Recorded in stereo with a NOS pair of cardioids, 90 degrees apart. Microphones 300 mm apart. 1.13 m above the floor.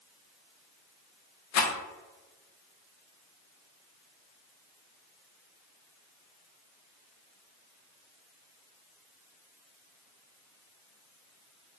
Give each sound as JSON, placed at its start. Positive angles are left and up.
{"t": 1.5, "sound": "a rattle", "azimuth_deg": 65, "distance_m": 0.6}